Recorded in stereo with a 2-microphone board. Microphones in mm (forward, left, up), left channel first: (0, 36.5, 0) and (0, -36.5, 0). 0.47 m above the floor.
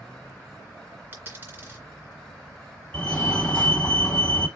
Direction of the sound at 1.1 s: 25° right (ahead or behind).